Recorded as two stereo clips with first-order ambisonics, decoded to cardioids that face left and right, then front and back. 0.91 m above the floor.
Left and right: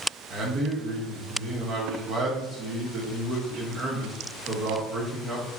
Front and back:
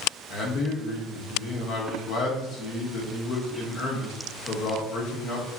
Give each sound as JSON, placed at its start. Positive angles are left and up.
{"t": 0.3, "sound": "a man speaking", "azimuth_deg": -40, "distance_m": 0.9}